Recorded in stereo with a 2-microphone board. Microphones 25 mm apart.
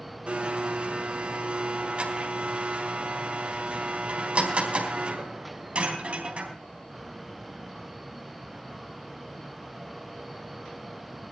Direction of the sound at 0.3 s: 55° right (ahead or behind).